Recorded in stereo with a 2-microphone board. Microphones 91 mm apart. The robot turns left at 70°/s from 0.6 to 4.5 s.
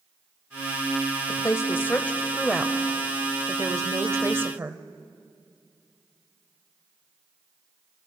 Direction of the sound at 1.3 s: 85° left.